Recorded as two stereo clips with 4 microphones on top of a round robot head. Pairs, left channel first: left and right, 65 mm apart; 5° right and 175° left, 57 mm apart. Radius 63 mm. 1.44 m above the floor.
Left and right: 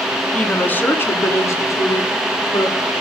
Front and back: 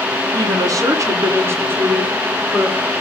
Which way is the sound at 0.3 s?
165° left.